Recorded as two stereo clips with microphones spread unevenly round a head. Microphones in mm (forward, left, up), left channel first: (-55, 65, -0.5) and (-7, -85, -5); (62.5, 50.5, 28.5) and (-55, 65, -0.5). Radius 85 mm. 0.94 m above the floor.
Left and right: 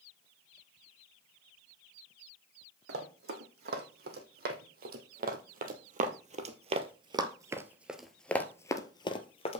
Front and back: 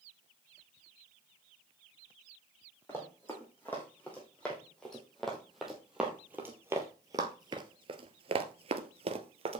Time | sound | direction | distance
2.9 | running footsteps | 80° right | 3 m